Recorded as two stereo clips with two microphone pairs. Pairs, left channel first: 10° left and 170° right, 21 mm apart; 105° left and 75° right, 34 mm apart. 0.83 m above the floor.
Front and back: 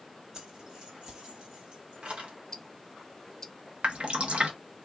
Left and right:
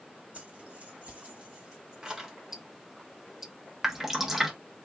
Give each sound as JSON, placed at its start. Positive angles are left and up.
{"t": 0.3, "sound": "keys jangling", "azimuth_deg": -115, "distance_m": 2.5}
{"t": 2.5, "sound": "ticking", "azimuth_deg": -25, "distance_m": 0.5}
{"t": 3.8, "sound": "dripping", "azimuth_deg": -150, "distance_m": 1.0}